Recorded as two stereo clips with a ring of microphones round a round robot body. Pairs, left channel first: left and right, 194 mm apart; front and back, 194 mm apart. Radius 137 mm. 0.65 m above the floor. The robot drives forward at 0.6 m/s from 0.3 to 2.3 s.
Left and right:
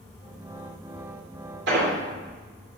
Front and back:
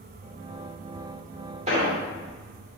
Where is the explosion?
120° right, 2 m; by 1.9 s 125° right, 2.5 m.